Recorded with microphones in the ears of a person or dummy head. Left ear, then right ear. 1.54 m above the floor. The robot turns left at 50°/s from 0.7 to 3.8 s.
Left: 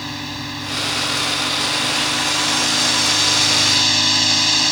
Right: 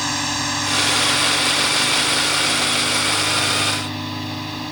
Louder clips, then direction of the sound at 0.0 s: Right 6 dB; 140° right.